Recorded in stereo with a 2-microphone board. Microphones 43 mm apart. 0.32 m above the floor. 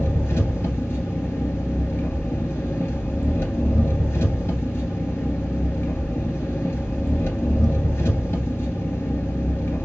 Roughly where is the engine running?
Left.